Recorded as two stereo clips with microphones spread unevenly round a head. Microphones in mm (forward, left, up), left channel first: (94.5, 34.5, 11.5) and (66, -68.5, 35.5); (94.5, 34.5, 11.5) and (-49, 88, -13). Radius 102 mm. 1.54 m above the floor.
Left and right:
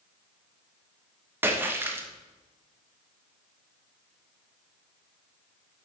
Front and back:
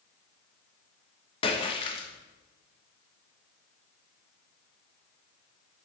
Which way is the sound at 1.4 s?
55° right.